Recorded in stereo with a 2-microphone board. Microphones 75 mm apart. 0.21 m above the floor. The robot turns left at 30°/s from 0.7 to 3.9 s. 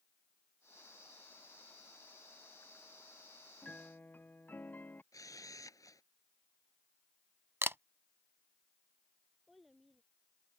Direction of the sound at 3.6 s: 15° left (ahead or behind).